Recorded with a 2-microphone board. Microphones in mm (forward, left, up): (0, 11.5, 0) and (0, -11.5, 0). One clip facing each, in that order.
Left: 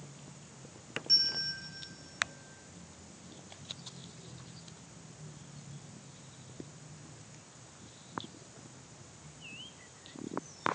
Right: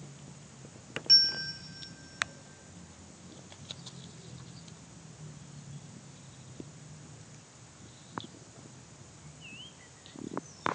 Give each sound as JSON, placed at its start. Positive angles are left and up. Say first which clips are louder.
{"t": 1.1, "sound": "a bell", "louder": "right 5 dB", "side_deg": -40, "distance_m": 1.4}